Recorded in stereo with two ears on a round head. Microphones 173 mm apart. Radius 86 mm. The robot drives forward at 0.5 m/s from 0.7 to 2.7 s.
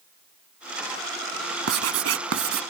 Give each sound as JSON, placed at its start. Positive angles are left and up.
{"t": 1.7, "sound": "writing", "side_deg": -85}